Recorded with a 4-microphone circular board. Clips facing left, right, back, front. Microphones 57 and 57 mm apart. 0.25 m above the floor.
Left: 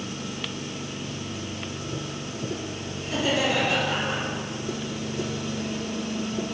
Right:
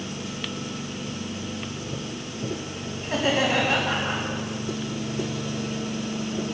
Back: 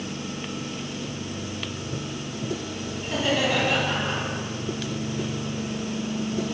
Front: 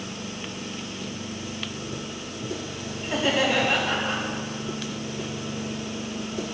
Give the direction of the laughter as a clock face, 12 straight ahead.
2 o'clock.